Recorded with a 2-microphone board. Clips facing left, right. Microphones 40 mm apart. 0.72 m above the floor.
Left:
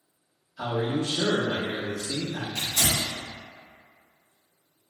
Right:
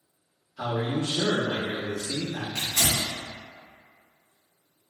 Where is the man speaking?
45° right (ahead or behind), 1.4 m.